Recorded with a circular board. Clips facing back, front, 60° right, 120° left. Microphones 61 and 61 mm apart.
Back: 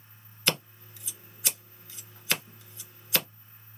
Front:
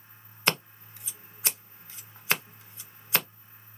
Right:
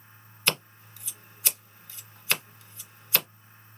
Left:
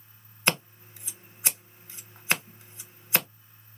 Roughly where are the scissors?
Ahead left.